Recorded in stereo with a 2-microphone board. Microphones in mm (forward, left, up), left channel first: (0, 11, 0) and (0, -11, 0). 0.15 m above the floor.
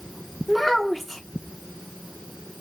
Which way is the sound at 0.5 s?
Centre (ahead or behind).